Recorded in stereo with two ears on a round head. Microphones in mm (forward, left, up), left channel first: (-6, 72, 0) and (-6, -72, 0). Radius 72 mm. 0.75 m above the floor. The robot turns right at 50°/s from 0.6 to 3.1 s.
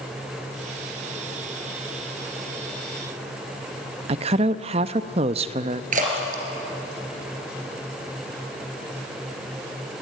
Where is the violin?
I don't hear a violin.